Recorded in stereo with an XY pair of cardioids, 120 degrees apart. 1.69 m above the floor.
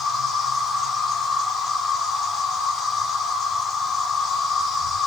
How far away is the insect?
About 1.7 m.